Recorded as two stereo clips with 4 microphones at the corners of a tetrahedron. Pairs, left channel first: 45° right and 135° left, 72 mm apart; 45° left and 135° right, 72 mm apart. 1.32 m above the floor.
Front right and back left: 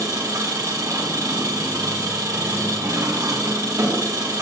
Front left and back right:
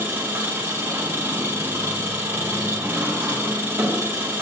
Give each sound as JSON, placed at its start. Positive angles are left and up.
{"t": 0.0, "sound": "an engine running", "azimuth_deg": 170, "distance_m": 1.8}